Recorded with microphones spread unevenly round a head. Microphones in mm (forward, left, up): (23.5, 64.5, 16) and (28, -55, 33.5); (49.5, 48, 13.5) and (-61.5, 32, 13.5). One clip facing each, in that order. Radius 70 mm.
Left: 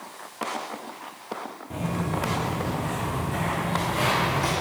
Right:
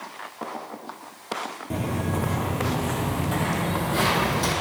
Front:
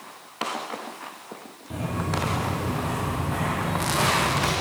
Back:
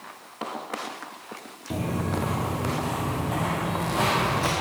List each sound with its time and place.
1.7 s footsteps: 125° right, 1.6 m; by 4.5 s 85° right, 3 m